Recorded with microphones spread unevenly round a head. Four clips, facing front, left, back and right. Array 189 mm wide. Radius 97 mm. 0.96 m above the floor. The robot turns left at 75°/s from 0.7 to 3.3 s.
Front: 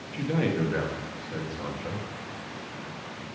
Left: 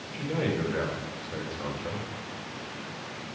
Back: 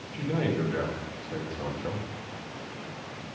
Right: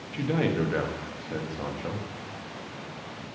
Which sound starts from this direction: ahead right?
A man speaking, at 0.1 s.